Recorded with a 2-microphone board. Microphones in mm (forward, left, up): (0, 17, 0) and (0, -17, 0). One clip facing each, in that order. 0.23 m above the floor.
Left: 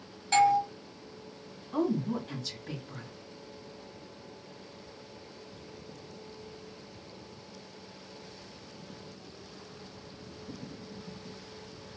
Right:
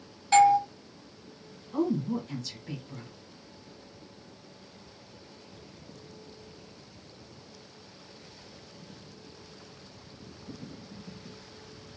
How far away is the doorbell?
About 1.7 m.